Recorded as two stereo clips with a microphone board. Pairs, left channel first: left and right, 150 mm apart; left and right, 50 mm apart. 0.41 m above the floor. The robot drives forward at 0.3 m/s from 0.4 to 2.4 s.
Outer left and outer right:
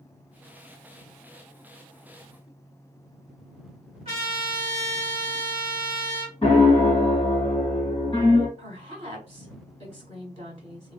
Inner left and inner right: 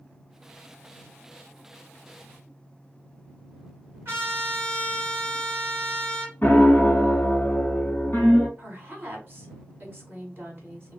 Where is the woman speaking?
40° right (ahead or behind), 1.5 m.